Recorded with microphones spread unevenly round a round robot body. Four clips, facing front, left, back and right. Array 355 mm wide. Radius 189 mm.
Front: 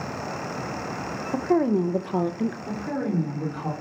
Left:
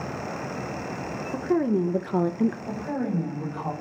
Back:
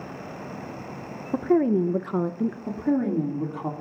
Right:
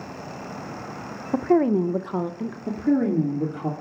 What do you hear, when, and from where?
1.3 s a woman speaking: 105° right, 0.9 m; by 2.6 s 95° left, 0.9 m
2.7 s a woman speaking: 115° right, 2.5 m